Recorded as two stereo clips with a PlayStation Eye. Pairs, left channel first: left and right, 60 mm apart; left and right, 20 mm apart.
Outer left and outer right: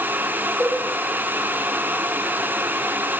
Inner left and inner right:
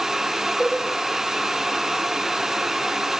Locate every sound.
0.6 s a cowbell: 5° right (ahead or behind), 1.2 m